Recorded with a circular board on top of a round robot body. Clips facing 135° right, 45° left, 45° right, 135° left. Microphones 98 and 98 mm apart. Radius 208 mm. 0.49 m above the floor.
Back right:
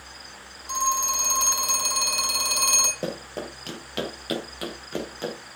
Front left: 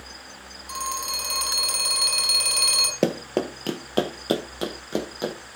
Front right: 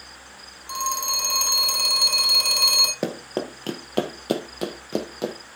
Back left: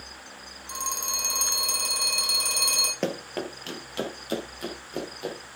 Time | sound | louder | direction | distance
0.7 | a phone ringing | back right 5 dB, front right 7 dB | 75° right | 4.5 m
3.0 | running footsteps | front left 8 dB, front right 2 dB | 35° left | 1.0 m